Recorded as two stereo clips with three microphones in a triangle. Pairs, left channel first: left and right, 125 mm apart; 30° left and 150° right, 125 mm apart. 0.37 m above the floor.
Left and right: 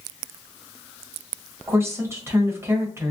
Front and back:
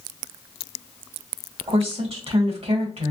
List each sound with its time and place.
1.7 s a woman speaking: 155° right, 1.5 m